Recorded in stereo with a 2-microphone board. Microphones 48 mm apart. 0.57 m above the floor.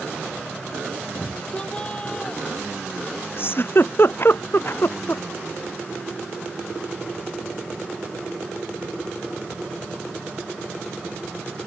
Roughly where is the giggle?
Left.